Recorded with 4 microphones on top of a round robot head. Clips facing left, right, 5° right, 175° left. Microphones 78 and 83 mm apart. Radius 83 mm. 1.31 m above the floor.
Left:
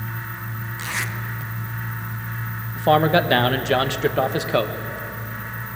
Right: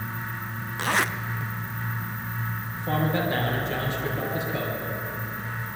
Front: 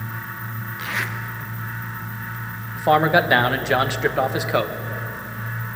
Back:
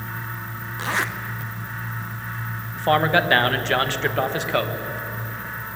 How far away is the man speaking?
About 1.6 m.